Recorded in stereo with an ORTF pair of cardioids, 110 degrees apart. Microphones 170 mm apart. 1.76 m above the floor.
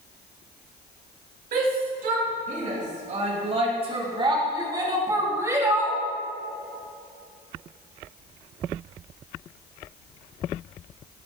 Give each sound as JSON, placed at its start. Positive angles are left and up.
{"t": 1.5, "sound": "a shout", "azimuth_deg": -60, "distance_m": 4.0}